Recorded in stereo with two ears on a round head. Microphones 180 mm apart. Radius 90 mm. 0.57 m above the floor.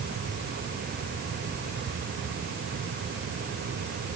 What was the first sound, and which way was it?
Only background noise.